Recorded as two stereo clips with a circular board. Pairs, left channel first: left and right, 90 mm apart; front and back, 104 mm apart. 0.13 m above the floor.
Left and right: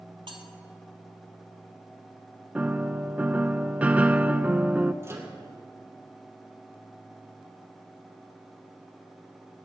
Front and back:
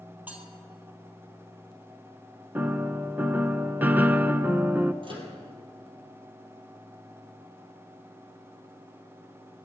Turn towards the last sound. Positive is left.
turn(degrees=-150)